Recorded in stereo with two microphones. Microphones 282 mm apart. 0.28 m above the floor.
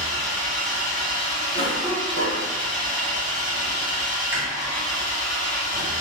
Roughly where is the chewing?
Centre.